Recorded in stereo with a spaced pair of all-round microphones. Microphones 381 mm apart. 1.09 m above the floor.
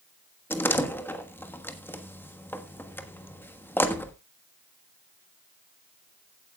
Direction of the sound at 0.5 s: 5° left (ahead or behind).